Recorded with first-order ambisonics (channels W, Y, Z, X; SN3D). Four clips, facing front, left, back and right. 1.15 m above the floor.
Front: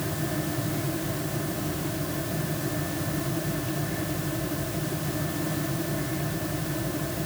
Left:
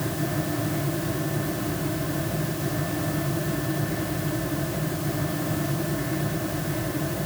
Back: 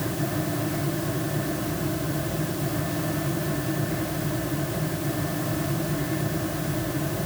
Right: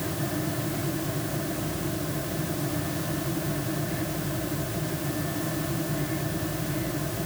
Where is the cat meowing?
I don't hear a cat meowing.